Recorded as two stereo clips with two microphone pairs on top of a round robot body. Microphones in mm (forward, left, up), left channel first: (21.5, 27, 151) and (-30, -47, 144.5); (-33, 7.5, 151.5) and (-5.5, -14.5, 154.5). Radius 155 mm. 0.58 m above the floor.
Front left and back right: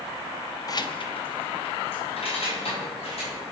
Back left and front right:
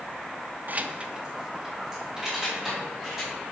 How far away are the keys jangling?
About 0.6 m.